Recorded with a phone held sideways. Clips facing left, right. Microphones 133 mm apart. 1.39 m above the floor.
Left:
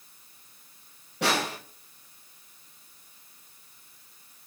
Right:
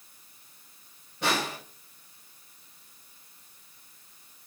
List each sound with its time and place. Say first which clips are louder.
1.2 s a snare drum: left 2 dB; 80° left, 1.9 m